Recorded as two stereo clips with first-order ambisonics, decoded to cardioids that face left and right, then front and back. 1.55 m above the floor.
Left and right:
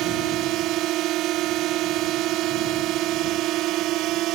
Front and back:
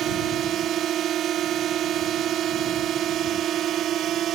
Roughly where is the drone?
Behind right.